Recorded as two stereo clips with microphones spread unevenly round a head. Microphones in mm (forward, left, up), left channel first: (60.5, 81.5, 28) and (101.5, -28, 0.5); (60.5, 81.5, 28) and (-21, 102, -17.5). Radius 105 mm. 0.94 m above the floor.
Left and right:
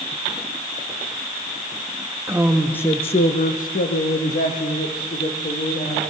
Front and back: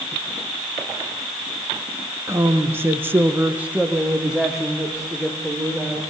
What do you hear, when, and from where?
2.3 s a woman speaking: 140° right, 1.3 m; by 6.0 s 80° left, 4 m